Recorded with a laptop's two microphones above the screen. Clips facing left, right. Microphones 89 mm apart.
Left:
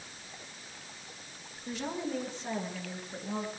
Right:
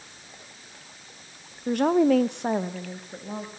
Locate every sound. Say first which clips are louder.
1.7 s a woman speaking: right 16 dB; 50° right (ahead or behind), 0.9 m; by 3.5 s 10° right (ahead or behind), 1.4 m